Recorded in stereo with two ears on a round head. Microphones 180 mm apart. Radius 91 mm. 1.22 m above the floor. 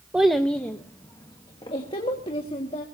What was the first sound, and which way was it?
A child speaking, 5° right (ahead or behind).